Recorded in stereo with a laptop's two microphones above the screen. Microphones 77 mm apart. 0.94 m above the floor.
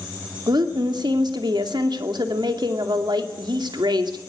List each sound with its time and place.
0.5 s a woman speaking: 70° right (ahead or behind), 2.5 m